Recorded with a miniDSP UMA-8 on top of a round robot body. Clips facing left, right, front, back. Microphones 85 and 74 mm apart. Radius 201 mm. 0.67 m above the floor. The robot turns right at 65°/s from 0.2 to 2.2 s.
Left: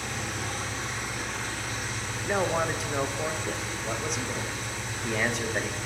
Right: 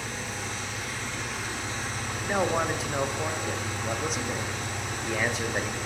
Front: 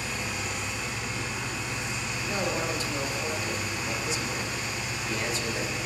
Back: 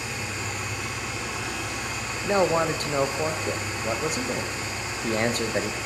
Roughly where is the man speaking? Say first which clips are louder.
Even, back 9 dB; behind.